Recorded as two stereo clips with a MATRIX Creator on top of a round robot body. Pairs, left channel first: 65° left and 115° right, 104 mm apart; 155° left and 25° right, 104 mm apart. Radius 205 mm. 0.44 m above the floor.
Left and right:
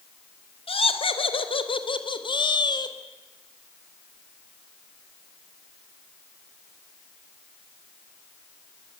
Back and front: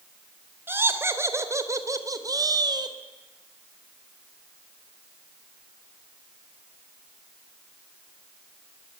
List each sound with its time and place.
0.7 s laughter: 45° left, 3.5 m; by 3.0 s 25° left, 3 m